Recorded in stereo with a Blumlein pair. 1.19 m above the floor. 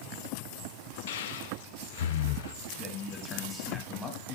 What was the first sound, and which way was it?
Breathing, 55° left.